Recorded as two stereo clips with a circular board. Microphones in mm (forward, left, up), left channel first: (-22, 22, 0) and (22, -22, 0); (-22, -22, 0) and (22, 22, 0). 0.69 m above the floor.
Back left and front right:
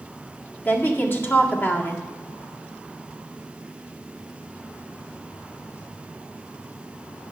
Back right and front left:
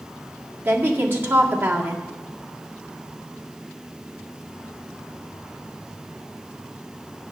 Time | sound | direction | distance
0.7 | a woman speaking | 90° left | 1.8 m